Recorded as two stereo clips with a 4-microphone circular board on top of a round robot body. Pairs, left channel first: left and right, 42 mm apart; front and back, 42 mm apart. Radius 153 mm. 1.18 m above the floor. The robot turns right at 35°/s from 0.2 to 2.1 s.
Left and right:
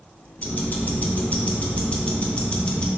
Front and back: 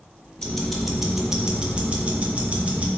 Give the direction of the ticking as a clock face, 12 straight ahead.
9 o'clock.